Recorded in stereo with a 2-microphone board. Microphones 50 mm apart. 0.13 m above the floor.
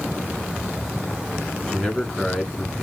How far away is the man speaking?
About 1.7 m.